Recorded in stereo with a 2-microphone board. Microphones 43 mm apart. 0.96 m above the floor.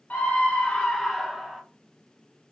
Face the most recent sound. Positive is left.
turn(degrees=0)  # may be behind; listen again after turning